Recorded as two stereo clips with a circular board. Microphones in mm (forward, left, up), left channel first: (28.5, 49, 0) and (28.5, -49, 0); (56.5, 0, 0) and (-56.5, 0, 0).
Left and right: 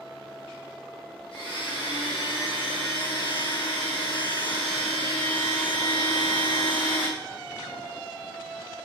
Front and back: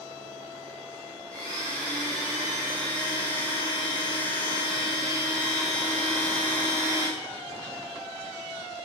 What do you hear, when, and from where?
1.3 s a blender: 125° left, 2 m